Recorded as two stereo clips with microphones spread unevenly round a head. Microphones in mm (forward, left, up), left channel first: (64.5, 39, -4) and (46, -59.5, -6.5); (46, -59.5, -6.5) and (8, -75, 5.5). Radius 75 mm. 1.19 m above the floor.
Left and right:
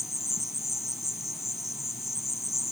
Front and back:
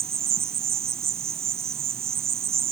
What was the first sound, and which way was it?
An insect, 170° left.